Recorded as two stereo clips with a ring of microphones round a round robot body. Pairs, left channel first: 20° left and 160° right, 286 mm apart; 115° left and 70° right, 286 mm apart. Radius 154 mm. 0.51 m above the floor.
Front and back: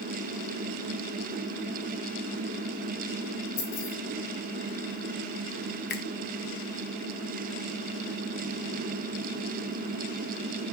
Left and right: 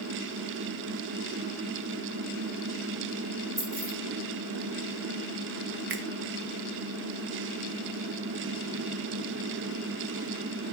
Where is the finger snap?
25° right, 1.0 m.